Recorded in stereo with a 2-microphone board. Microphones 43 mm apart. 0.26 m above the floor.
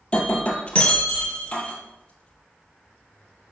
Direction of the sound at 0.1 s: 25° left (ahead or behind).